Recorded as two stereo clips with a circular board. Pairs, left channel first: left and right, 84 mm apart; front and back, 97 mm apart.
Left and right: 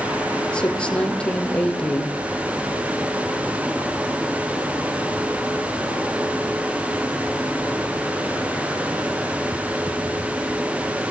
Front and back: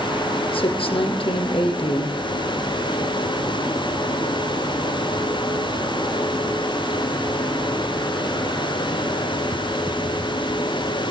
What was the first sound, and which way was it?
A woman speaking, 10° left.